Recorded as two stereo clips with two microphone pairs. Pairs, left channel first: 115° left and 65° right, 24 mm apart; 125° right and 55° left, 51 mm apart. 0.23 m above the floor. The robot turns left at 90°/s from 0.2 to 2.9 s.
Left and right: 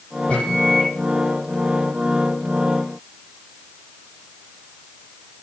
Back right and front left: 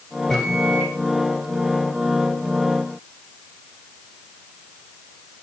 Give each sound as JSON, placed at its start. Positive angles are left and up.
{"t": 0.3, "sound": "a microwave", "azimuth_deg": 145, "distance_m": 6.5}